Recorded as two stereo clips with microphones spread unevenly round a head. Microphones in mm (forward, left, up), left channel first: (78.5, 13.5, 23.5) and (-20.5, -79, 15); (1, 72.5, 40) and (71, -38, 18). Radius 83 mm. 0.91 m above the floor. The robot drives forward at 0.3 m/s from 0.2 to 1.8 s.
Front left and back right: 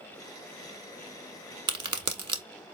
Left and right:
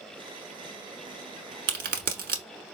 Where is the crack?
80° right, 1.1 m; by 2.4 s 85° right, 1.1 m.